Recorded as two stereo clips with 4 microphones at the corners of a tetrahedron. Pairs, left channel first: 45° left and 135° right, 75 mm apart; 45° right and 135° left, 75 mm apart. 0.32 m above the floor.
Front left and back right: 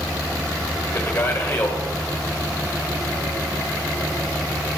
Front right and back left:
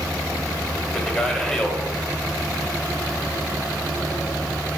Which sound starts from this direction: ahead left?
A man speaking, at 0.9 s.